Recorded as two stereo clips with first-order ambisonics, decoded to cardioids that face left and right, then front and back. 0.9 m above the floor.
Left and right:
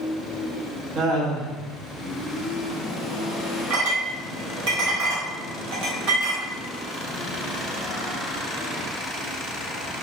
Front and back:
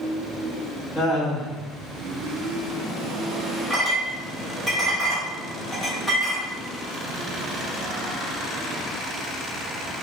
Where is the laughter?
75° right, 1.1 m.